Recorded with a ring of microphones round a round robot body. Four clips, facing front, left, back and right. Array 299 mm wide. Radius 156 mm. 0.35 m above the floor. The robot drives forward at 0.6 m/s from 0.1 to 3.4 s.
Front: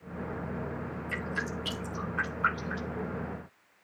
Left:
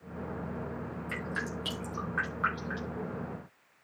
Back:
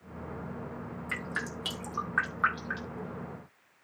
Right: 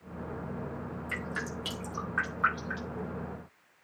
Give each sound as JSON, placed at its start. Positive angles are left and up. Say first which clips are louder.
{"t": 1.1, "sound": "dripping", "louder": "left 1 dB, front 1 dB", "azimuth_deg": 180, "distance_m": 9.5}